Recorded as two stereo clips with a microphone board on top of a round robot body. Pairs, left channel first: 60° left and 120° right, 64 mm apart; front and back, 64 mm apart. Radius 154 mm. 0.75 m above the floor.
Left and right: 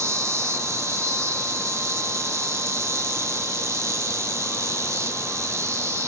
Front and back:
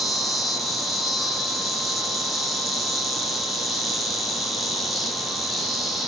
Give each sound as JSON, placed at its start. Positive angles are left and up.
{"t": 0.0, "sound": "an insect", "azimuth_deg": -95, "distance_m": 0.7}